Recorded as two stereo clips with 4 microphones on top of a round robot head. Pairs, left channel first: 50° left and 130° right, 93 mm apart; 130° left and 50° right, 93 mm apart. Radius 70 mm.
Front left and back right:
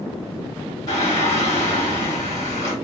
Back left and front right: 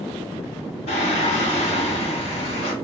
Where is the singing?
110° left, 1.2 m.